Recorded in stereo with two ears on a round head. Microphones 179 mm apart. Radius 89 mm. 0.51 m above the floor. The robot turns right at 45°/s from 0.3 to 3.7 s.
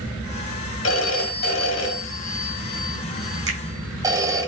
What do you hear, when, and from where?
0.8 s a phone ringing: 70° left, 1.2 m; by 4.5 s 165° right, 1.2 m
3.5 s a finger snap: 65° right (ahead or behind), 1.7 m; by 3.6 s 60° right (ahead or behind), 1.7 m